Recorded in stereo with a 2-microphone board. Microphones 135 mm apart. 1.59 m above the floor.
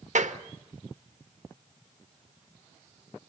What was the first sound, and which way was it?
A clap, 65° right (ahead or behind).